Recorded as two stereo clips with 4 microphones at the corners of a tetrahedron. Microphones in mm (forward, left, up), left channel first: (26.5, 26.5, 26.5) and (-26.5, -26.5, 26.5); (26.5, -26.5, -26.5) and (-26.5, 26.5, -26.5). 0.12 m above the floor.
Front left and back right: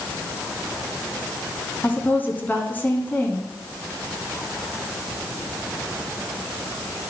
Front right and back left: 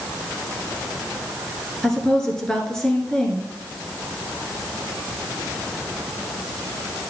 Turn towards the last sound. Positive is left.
turn(degrees=25)